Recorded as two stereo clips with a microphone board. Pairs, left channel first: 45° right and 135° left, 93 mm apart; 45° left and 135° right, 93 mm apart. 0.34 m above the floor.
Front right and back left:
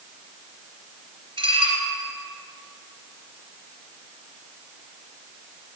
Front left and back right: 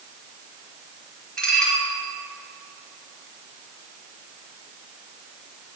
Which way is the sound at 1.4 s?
125° left.